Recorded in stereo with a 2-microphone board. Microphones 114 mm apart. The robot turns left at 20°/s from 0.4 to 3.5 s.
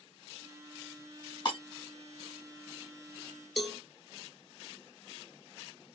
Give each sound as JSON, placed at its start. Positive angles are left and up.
{"t": 1.4, "sound": "breaking glass", "side_deg": 40, "distance_m": 1.4}
{"t": 3.6, "sound": "a cowbell", "side_deg": 0, "distance_m": 0.6}